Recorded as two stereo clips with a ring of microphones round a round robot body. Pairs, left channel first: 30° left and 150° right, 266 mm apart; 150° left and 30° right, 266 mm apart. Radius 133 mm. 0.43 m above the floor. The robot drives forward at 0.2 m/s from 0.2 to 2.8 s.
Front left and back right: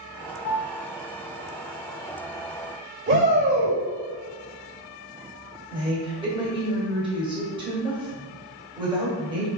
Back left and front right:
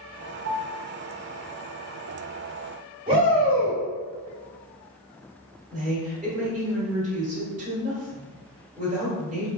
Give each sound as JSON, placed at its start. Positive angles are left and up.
{"t": 0.5, "sound": "a piano", "azimuth_deg": 15, "distance_m": 0.8}
{"t": 3.1, "sound": "a shout", "azimuth_deg": -95, "distance_m": 2.0}
{"t": 5.7, "sound": "a woman speaking", "azimuth_deg": -85, "distance_m": 1.7}